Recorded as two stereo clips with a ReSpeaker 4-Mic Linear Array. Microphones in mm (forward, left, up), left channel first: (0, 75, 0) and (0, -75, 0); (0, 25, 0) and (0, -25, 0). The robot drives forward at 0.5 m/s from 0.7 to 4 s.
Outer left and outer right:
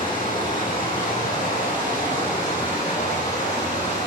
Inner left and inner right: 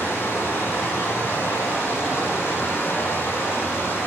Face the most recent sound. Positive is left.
turn(degrees=55)  # may be behind; listen again after turning